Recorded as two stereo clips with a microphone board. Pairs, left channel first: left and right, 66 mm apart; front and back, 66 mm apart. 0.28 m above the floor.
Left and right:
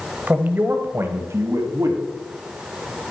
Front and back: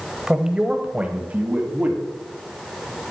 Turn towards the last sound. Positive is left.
turn(degrees=-115)